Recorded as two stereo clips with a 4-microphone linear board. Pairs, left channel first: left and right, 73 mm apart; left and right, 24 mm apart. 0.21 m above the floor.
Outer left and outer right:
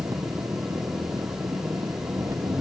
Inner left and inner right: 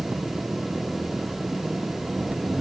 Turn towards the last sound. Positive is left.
turn(degrees=-45)  # may be behind; listen again after turning